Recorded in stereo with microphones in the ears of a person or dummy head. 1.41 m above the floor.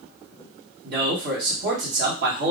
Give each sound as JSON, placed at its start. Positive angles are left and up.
{"t": 0.8, "sound": "a man speaking", "side_deg": -60, "distance_m": 1.7}